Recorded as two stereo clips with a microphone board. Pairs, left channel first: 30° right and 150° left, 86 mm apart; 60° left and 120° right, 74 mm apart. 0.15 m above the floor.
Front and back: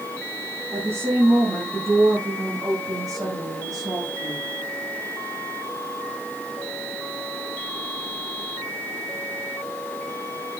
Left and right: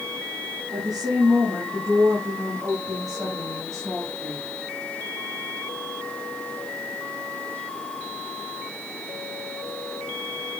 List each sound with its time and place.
0.7 s a woman speaking: 155° right, 5 m; by 4.5 s 170° right, 8.5 m